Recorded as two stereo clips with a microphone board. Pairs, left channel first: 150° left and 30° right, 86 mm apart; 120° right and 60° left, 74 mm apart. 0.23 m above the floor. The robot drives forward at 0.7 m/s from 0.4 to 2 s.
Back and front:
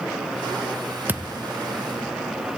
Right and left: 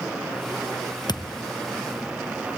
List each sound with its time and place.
1.1 s a thud: 100° right, 0.8 m; by 1.4 s 115° right, 0.9 m